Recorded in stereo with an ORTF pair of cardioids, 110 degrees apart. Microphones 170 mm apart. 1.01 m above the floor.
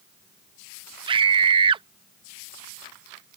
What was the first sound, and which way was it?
A scream, 30° right.